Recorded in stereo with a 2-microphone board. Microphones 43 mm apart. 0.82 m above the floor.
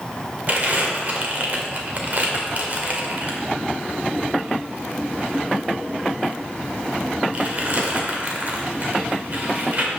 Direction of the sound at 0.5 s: 40° right (ahead or behind).